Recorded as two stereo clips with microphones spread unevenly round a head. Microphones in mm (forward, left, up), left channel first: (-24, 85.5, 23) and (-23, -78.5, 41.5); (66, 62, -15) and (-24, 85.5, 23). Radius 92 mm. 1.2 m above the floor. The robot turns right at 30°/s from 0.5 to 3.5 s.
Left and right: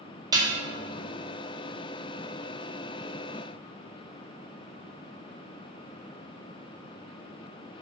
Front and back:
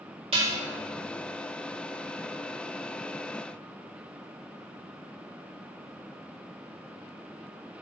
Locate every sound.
0.3 s dishes clattering: 155° right, 1.7 m